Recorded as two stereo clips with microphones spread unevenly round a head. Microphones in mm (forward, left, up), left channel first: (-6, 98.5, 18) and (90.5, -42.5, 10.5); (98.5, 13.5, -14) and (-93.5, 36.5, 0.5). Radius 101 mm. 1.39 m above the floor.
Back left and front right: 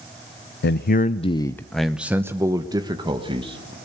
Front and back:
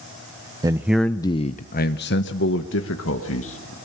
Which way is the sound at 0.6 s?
105° left.